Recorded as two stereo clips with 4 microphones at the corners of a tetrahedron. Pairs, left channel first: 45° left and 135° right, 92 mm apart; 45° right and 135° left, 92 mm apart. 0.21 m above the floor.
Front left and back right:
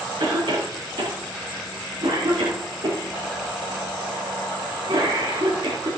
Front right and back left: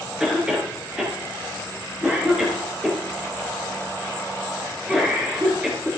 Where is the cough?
150° right, 3 m.